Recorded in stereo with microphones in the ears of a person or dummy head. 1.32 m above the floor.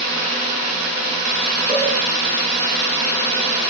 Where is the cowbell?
45° right (ahead or behind), 7 m.